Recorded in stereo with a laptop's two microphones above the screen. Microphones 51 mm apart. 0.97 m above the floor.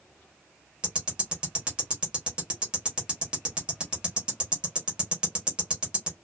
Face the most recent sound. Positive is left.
turn(degrees=-20)  # may be behind; listen again after turning